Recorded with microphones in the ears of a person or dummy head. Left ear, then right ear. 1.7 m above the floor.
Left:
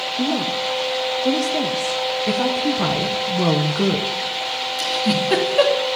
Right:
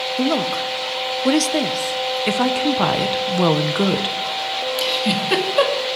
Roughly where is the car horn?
No car horn in this recording.